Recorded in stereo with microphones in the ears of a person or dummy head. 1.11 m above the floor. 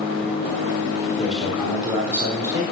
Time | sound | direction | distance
1.2 | a man speaking | centre (ahead or behind) | 3.5 m